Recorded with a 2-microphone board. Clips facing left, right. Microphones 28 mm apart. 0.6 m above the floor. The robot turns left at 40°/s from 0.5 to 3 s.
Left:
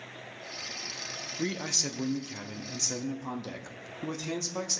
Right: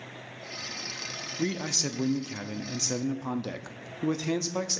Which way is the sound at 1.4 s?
Centre (ahead or behind).